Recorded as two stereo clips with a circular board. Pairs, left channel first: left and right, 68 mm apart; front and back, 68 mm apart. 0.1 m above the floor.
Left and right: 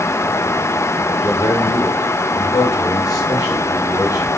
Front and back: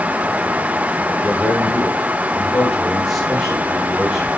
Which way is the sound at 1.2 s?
75° left.